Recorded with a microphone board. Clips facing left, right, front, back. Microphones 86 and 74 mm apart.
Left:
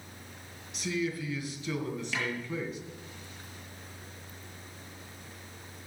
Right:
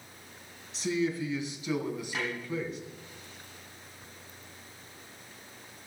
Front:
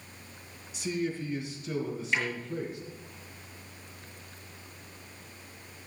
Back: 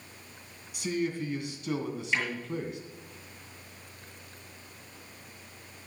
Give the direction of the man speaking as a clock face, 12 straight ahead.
5 o'clock.